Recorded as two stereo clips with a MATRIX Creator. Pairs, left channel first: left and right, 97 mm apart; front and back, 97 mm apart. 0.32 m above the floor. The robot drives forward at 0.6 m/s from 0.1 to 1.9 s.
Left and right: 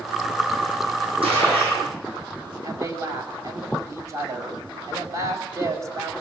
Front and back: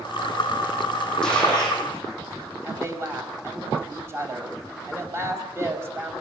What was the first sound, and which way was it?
A gunshot, 85° right.